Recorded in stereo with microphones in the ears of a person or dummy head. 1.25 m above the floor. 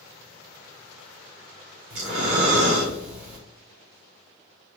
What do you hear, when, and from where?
1.9 s breathing: 65° right (ahead or behind), 1.6 m